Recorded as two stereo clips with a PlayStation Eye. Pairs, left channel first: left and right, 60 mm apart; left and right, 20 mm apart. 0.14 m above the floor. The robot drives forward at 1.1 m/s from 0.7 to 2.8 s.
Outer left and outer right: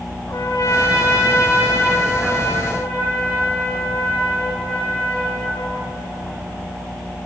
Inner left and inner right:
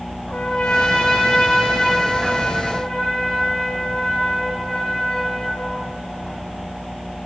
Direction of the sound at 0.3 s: 50° left (ahead or behind).